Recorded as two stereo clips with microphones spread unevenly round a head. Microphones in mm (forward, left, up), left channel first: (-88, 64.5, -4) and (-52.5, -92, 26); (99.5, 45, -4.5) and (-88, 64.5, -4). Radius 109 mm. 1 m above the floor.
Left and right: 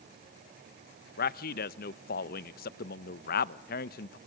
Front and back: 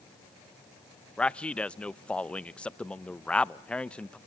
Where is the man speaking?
80° left, 0.5 m.